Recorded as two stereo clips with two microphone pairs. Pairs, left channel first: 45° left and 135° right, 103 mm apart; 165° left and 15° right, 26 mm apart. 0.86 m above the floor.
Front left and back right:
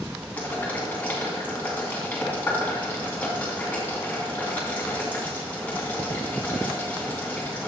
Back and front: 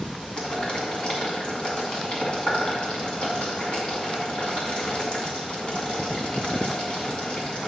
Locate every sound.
0.4 s boiling: 120° left, 2.5 m